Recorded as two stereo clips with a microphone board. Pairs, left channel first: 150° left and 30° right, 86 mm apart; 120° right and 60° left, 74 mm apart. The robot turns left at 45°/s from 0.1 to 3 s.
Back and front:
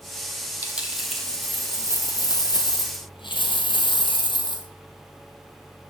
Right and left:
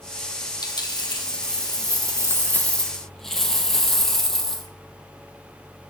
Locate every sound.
0.6 s a dropped coin: 100° right, 1.3 m; by 4.7 s 155° left, 1.3 m